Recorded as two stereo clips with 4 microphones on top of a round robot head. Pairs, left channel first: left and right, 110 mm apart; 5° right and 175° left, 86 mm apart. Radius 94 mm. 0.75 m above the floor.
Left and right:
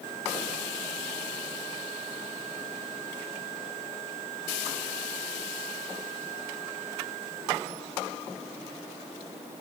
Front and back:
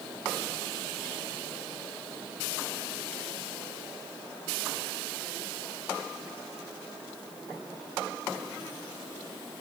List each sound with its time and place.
Only background noise.